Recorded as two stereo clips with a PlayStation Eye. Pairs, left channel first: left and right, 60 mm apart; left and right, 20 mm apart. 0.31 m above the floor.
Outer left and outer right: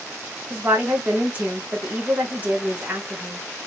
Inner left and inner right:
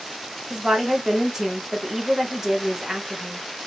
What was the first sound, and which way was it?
A woman speaking, 30° right (ahead or behind).